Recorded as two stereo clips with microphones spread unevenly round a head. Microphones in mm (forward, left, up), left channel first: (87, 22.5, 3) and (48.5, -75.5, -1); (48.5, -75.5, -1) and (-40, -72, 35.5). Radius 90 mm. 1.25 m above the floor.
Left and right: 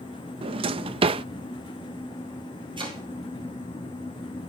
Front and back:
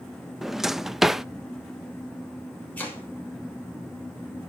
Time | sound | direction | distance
0.4 | a drawer | 115° right | 0.5 m
2.8 | chopping | 75° right | 6.5 m